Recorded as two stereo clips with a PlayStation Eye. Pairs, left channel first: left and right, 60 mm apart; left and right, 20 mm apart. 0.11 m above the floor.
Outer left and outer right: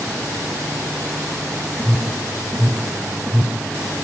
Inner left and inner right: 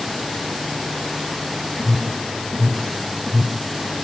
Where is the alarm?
25° right (ahead or behind), 1.7 m.